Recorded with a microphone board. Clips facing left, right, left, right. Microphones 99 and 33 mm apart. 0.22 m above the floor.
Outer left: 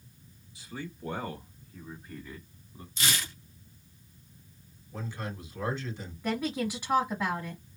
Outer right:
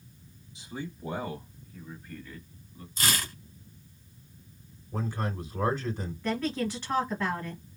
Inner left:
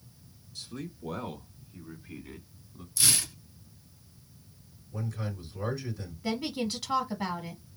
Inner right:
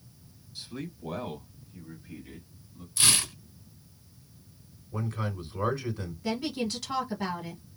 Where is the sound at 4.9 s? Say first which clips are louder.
Outer right 5 dB, inner right 3 dB; 45° right (ahead or behind), 1.9 m.